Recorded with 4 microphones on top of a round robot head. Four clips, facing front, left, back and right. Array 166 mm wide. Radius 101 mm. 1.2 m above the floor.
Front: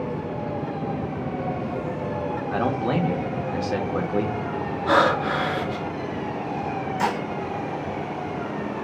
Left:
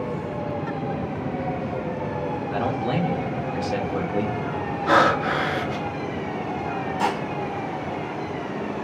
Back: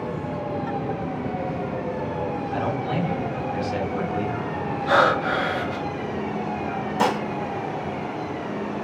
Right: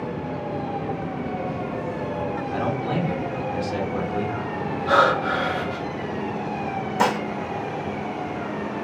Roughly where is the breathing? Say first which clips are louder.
Even, even; ahead left.